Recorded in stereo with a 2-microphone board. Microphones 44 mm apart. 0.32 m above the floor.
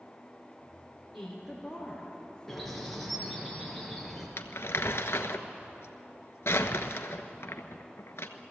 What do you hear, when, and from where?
1.1 s a woman speaking: centre (ahead or behind), 5.5 m
2.5 s a bird: centre (ahead or behind), 4 m
4.4 s crumpling: 70° left (ahead or behind), 1.2 m